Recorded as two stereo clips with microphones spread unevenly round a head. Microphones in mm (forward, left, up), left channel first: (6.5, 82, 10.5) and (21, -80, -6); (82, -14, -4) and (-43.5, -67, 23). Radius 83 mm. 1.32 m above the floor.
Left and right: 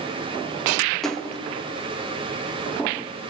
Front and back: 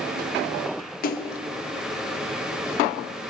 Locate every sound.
1.0 s a splash: 10° left, 0.8 m